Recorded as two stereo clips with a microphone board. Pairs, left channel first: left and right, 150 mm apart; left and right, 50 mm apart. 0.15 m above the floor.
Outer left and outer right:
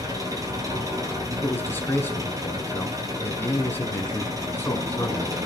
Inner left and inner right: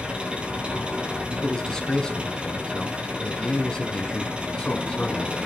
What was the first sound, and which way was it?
An engine running, 25° right (ahead or behind).